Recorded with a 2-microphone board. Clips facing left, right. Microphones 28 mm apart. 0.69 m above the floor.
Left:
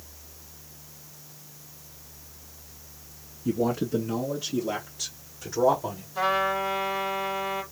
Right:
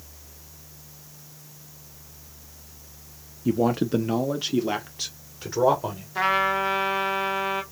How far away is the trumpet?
About 1.3 m.